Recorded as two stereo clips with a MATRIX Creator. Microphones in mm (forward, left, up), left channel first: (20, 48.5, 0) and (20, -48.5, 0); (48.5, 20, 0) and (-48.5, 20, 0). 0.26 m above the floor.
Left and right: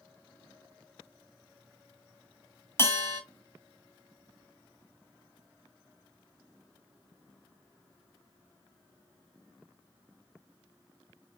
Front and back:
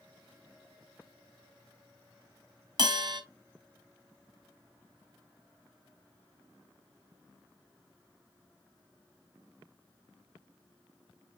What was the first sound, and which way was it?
A bell, 150° left.